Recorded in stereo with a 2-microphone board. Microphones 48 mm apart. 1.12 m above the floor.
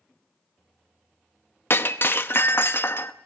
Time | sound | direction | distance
1.7 | breaking glass | 55° left (ahead or behind) | 0.7 m